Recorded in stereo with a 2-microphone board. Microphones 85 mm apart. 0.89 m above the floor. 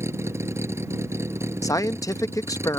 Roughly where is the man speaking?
Left.